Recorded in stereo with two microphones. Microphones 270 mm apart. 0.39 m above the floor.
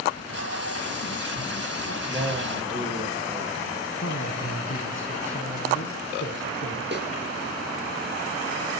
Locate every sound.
0.1 s tape being pulled: 60° left (ahead or behind), 3.5 m
2.1 s a man speaking: 20° right (ahead or behind), 8 m
4.0 s a man speaking: 45° left (ahead or behind), 5 m
6.9 s a snare drum: 40° right (ahead or behind), 4.5 m